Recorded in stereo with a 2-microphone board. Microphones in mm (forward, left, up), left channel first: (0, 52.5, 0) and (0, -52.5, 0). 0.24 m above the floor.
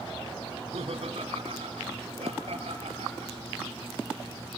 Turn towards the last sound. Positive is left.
turn(degrees=-75)  # may be behind; listen again after turning